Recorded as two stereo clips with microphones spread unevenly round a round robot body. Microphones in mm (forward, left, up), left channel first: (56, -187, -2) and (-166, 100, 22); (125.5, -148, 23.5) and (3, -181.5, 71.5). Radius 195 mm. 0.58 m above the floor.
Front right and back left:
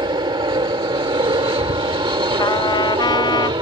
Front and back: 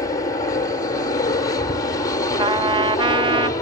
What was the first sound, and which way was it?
An aircraft, 50° left.